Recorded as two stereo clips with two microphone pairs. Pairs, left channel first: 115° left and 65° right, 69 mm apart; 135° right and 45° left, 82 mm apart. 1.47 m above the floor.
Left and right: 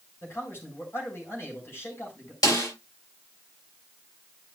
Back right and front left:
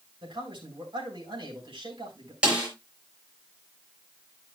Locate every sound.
0.2 s a man speaking: 60° left, 4.5 m
2.4 s a snare drum: 125° left, 4.5 m